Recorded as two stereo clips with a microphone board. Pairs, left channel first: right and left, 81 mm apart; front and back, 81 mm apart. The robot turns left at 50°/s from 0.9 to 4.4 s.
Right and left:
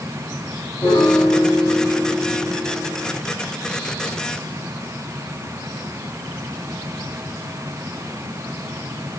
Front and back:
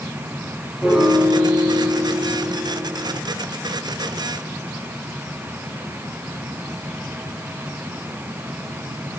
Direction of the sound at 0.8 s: 90° right.